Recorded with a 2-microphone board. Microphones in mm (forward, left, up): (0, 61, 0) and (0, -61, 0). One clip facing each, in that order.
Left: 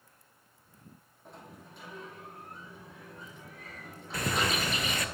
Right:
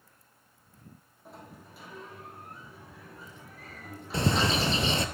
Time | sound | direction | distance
1.2 | a sliding door | 5° right (ahead or behind) | 2.5 m
4.1 | a bird | 30° right (ahead or behind) | 0.6 m